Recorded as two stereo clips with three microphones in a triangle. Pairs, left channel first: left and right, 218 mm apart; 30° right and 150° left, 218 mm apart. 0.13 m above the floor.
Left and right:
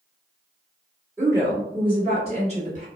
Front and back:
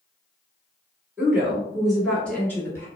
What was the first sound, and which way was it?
A woman speaking, 145° right.